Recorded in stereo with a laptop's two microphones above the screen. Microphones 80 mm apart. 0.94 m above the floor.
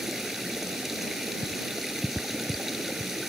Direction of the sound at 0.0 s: 5° right (ahead or behind).